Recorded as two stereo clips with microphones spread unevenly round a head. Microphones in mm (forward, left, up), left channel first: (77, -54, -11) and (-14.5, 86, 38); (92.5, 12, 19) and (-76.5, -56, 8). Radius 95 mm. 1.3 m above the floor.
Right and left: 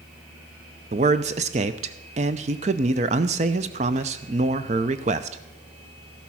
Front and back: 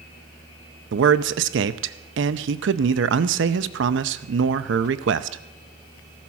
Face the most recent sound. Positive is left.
turn(degrees=180)